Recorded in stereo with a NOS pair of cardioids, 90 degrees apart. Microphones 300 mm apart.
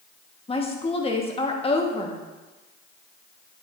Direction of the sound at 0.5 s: 20° left.